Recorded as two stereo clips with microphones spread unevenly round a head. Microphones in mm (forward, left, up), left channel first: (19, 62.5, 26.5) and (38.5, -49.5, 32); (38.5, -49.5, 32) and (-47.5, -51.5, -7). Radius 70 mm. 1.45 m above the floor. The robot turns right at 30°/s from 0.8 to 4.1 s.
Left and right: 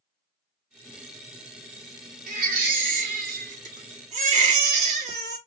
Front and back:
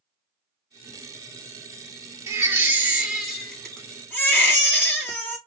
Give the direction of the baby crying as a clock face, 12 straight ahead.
4 o'clock.